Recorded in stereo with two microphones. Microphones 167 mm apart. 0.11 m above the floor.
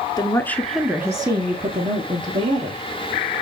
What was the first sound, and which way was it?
A woman speaking, 25° left (ahead or behind).